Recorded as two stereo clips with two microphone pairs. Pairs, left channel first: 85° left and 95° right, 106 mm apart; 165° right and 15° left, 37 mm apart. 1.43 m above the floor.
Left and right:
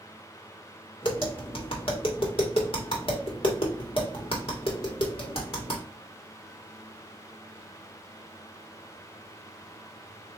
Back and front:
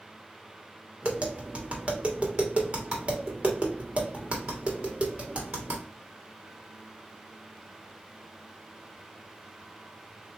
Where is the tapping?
65° left, 1.5 m.